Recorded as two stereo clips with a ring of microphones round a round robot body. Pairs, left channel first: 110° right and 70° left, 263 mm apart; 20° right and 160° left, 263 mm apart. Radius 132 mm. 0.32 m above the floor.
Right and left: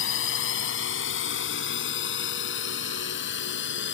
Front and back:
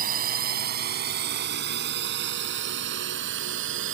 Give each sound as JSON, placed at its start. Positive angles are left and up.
{"t": 0.0, "sound": "a drone", "azimuth_deg": -150}